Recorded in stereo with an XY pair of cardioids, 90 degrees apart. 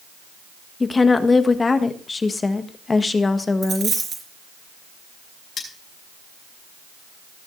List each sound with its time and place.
0.8 s a woman speaking: 30° left, 1.5 m
3.6 s a dropped coin: 50° right, 4 m
5.6 s cutlery clinking: 65° left, 5.5 m